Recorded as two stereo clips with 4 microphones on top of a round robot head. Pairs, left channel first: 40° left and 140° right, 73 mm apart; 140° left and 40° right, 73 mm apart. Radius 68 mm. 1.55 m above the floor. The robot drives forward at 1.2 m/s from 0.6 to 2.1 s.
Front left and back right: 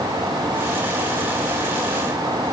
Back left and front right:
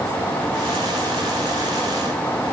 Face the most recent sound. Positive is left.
No sound to turn to.